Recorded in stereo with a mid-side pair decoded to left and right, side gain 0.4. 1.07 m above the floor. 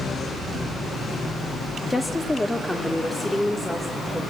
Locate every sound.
1.9 s a woman speaking: 20° left, 1.8 m; by 4.2 s 5° left, 4 m